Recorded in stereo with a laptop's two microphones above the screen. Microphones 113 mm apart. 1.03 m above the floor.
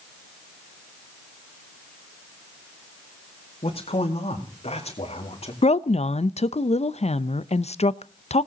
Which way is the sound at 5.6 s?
75° left (ahead or behind).